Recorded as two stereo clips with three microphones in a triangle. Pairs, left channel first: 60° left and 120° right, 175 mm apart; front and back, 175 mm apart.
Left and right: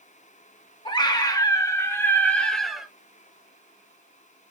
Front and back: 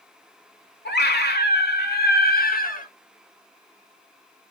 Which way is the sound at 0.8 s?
Straight ahead.